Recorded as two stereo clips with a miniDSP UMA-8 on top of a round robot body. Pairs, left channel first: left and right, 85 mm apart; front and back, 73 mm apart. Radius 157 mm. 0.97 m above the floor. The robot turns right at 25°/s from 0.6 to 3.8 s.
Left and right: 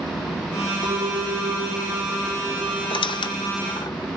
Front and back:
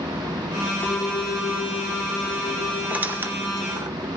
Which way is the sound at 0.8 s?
60° right.